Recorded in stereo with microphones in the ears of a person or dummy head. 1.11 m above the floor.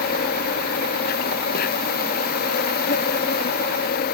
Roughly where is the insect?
Left.